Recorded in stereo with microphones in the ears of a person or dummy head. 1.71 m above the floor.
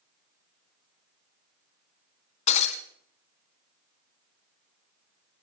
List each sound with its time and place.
2.5 s breaking glass: 35° left (ahead or behind), 3.5 m